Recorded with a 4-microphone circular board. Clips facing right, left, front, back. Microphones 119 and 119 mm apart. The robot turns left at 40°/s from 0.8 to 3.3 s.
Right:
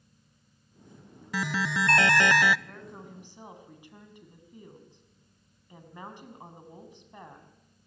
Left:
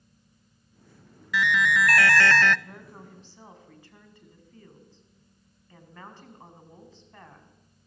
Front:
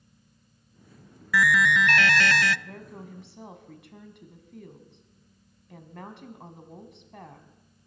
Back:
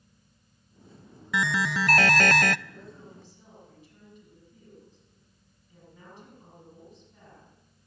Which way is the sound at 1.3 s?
120° right.